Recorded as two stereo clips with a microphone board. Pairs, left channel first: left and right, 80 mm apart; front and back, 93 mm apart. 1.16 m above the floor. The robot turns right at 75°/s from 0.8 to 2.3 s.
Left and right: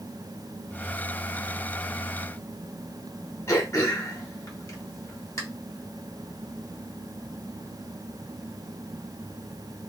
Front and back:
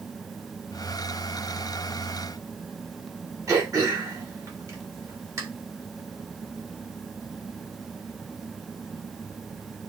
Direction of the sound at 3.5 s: 130° left.